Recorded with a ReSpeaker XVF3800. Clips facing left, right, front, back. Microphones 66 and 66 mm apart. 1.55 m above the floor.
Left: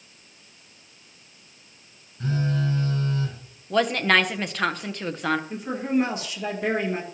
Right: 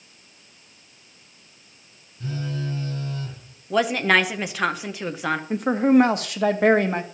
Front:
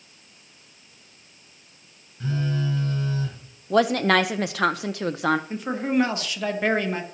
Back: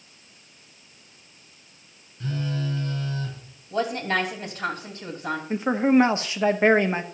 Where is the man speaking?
115° right, 0.8 m.